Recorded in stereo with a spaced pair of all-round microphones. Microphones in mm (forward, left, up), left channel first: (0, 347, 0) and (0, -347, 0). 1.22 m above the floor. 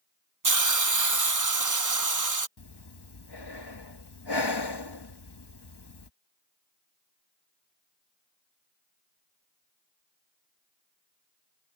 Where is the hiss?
30° right (ahead or behind).